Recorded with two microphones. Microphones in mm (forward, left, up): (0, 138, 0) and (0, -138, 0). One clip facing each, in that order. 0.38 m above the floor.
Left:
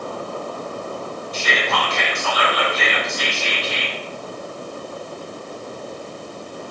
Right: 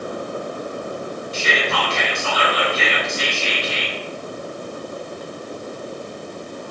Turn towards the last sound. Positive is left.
turn(degrees=-30)  # may be behind; listen again after turning